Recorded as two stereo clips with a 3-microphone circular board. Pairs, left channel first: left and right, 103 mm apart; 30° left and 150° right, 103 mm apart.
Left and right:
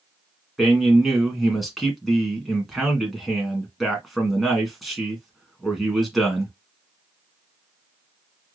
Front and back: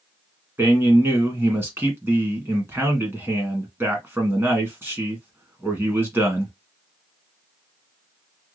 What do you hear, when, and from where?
0.6 s a man speaking: 175° right, 1.3 m